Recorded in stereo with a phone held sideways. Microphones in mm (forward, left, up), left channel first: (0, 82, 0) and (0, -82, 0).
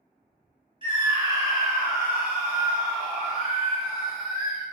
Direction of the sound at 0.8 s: 30° right (ahead or behind).